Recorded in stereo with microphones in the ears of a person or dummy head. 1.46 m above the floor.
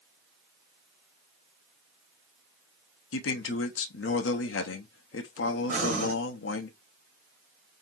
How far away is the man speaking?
About 0.7 m.